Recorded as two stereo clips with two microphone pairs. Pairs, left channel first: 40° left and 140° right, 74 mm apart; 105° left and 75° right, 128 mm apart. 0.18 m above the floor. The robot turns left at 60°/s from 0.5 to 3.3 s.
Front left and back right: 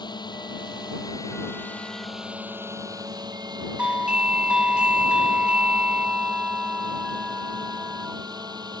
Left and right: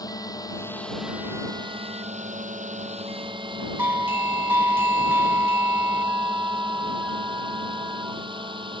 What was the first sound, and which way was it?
A drone, 45° left.